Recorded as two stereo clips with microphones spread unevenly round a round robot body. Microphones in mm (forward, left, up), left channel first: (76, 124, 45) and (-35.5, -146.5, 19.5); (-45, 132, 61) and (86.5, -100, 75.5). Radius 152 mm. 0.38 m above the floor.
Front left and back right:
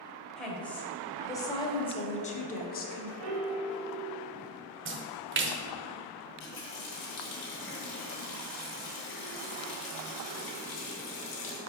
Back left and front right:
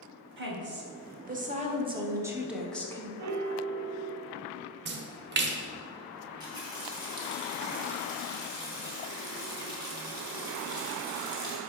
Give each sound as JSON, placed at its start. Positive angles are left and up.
{"t": 0.4, "sound": "a woman speaking", "azimuth_deg": -25, "distance_m": 1.9}
{"t": 3.2, "sound": "a piano", "azimuth_deg": -85, "distance_m": 0.7}
{"t": 4.8, "sound": "a splash", "azimuth_deg": -95, "distance_m": 0.9}
{"t": 6.2, "sound": "a running tap", "azimuth_deg": 15, "distance_m": 2.5}